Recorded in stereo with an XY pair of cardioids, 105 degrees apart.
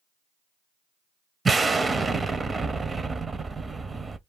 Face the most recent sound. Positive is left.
turn(degrees=-25)